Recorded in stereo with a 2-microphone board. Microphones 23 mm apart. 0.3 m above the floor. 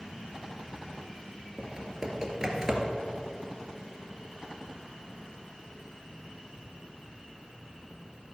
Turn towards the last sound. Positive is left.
turn(degrees=-20)  # may be behind; listen again after turning